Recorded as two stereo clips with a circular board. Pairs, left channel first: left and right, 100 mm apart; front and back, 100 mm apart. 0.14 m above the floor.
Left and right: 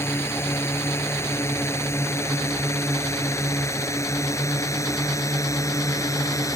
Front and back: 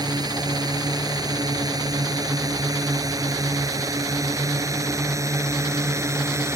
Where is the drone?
150° left; by 6.5 s 130° left.